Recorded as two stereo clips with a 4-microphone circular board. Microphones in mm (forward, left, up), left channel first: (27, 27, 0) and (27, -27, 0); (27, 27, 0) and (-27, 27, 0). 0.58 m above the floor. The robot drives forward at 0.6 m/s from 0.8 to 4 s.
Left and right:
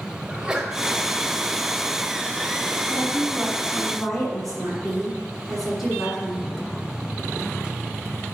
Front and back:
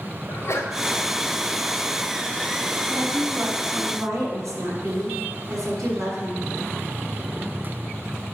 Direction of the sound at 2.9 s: 175° left.